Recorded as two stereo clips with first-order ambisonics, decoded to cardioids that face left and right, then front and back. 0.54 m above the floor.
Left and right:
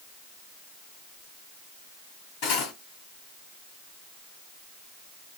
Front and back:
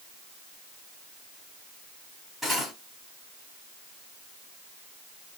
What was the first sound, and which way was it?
Cutlery clinking, 95° left.